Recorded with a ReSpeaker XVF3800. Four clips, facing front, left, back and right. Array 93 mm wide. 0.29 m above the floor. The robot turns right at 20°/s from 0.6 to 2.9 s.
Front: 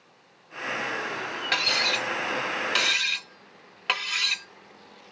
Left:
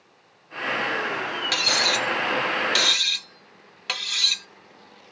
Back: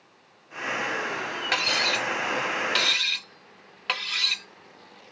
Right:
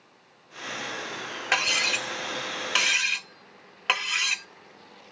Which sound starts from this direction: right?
Cutlery clinking, at 1.5 s.